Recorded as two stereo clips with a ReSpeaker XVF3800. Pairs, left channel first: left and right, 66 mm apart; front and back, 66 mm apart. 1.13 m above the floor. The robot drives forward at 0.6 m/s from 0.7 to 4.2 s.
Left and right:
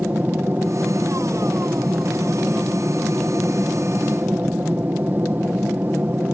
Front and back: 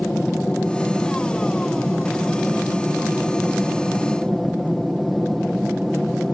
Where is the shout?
I don't hear a shout.